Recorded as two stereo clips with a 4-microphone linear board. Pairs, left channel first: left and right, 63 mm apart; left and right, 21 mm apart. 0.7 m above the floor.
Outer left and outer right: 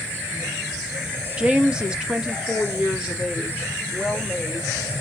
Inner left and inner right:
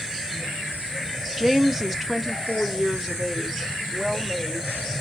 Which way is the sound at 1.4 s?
15° right (ahead or behind).